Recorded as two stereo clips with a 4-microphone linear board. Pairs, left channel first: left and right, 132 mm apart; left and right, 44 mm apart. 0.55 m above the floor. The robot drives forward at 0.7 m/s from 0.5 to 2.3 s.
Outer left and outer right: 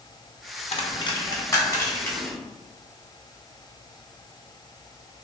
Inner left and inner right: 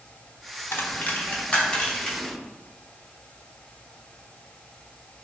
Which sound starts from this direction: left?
A dropped coin, at 0.7 s.